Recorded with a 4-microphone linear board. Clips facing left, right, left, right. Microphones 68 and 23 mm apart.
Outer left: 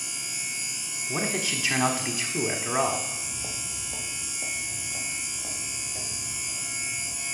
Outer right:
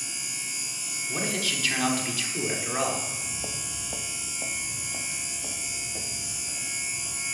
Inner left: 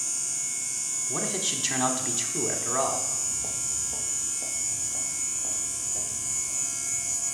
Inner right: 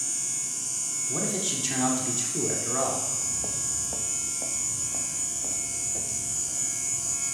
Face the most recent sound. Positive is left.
turn(degrees=-75)  # may be behind; listen again after turning